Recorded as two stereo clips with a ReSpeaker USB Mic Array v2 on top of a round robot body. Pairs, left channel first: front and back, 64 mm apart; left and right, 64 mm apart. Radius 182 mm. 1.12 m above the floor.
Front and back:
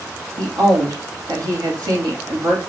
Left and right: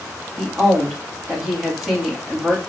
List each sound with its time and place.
0.4 s a woman speaking: 175° right, 2 m